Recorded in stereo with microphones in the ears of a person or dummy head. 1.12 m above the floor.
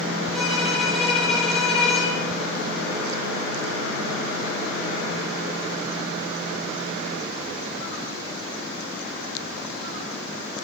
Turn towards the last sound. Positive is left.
turn(degrees=10)  # may be behind; listen again after turning